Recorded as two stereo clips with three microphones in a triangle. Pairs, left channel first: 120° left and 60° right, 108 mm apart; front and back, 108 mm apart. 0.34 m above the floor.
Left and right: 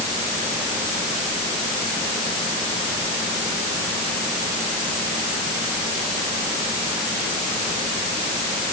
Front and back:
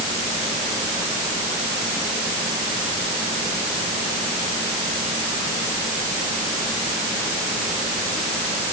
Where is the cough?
No cough in this recording.